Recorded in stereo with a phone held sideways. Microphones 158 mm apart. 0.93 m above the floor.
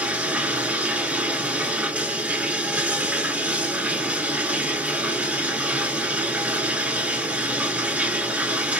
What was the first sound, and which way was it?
Running water, 10° right (ahead or behind).